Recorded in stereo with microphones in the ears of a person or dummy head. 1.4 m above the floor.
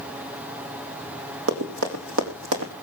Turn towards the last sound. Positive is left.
turn(degrees=-70)  # may be behind; listen again after turning